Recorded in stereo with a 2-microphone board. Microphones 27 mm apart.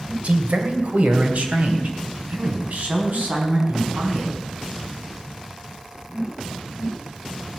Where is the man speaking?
65° right (ahead or behind), 2 m; by 4.4 s 80° right, 5 m.